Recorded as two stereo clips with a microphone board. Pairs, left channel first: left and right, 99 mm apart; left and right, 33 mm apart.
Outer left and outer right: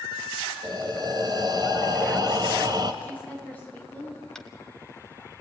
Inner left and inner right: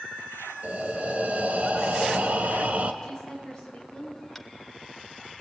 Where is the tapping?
5° left (ahead or behind), 1.5 m.